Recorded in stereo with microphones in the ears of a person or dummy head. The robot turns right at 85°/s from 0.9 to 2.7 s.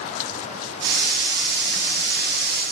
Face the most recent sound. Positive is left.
No sound to turn to.